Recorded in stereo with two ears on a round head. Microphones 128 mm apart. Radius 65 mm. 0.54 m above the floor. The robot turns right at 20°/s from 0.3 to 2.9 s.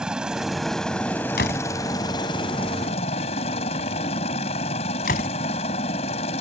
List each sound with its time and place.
0.0 s a helicopter: 5° right; by 6.4 s 45° left
1.4 s a door slam: 75° left (ahead or behind); by 5.3 s 70° left (ahead or behind)